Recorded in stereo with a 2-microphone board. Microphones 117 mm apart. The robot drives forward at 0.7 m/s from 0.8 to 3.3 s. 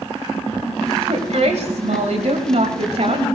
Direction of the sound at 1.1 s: 70° right (ahead or behind).